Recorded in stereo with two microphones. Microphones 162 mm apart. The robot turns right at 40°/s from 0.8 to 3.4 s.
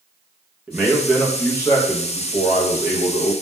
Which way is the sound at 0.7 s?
10° right.